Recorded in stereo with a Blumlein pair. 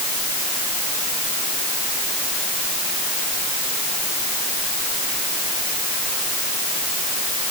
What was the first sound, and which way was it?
Only background noise.